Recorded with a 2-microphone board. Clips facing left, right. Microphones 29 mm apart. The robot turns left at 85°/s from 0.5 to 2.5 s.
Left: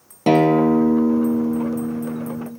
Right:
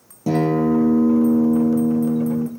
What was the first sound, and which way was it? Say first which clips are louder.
A guitar: left 4 dB; 75° left.